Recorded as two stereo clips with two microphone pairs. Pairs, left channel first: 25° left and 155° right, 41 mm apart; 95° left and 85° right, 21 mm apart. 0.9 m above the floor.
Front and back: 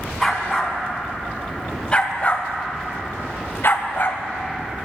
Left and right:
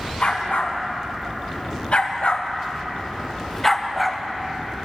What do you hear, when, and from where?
0.2 s a dog barking: 115° left, 2 m; by 4.2 s 5° left, 1.2 m